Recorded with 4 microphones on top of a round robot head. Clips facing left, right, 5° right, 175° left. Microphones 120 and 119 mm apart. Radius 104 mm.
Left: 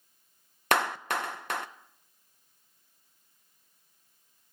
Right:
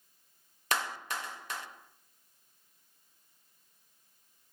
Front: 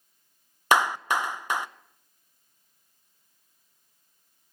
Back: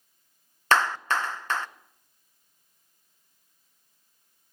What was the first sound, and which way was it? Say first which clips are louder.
A clap: left 7 dB, front 1 dB; 75° left.